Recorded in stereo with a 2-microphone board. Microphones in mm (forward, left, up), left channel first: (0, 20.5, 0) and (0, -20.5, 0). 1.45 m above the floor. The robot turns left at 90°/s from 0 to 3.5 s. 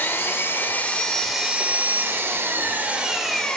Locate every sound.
0.0 s an engine running: 115° left, 2 m; by 3.6 s 160° left, 2 m